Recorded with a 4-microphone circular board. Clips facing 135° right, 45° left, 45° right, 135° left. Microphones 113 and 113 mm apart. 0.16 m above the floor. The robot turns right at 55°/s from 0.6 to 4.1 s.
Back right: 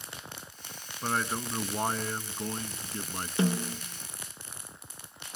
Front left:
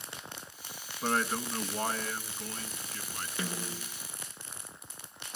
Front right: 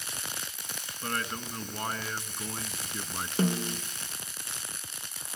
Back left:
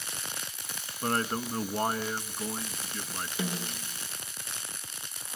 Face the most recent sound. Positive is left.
turn(degrees=-35)